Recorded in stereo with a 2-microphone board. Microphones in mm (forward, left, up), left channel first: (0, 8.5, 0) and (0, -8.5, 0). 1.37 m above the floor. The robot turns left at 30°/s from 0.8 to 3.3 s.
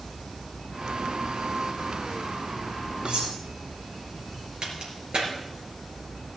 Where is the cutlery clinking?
80° right, 5 m; by 3.4 s 85° right, 5 m.